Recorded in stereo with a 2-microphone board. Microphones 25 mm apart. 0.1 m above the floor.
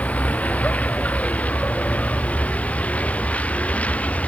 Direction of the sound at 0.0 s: 60° left (ahead or behind).